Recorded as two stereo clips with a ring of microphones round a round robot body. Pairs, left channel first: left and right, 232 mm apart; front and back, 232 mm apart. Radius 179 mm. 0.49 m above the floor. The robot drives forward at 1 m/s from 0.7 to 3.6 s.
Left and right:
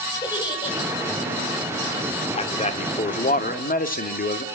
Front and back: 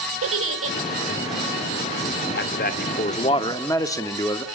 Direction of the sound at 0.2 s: 165° left.